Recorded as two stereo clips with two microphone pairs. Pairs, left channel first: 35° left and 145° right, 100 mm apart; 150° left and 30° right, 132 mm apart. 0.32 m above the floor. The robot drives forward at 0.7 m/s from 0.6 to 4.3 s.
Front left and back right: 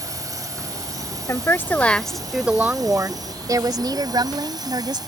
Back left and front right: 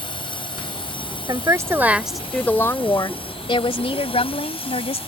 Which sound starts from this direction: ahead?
A woman speaking, at 1.3 s.